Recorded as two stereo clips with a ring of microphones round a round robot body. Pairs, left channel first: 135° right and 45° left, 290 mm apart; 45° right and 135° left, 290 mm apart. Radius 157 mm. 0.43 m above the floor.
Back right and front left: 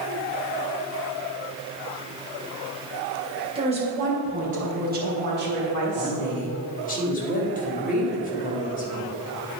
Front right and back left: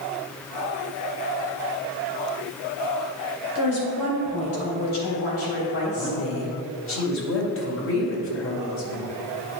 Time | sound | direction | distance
3.5 | a woman speaking | 25° right | 2.5 m
6.0 | a woman speaking | 80° right | 2 m